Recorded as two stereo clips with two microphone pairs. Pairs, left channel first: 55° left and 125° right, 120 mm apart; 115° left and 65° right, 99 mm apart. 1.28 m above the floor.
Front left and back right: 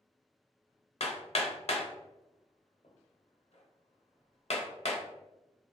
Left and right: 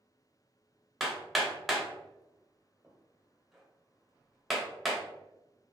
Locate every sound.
1.0 s hammering: 20° left, 0.8 m